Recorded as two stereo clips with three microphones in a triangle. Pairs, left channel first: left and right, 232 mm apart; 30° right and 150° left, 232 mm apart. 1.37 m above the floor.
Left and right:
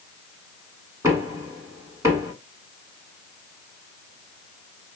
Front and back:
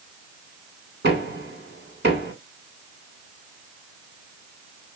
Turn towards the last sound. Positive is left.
turn(degrees=-165)